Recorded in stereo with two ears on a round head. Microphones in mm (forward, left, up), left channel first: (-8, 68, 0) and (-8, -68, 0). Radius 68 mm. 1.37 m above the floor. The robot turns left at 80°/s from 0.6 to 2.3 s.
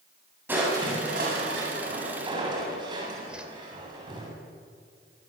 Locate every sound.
0.5 s crushing: 15° right, 7.5 m; by 4.3 s 150° right, 7.5 m
3.3 s a whoosh: 5° right (ahead or behind), 2.5 m